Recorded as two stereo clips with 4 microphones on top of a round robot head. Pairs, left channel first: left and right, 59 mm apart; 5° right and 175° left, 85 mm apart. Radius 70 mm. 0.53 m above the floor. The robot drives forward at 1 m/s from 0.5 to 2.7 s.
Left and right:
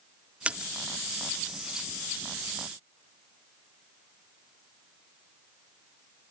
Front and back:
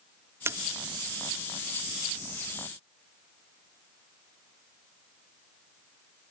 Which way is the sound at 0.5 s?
145° right.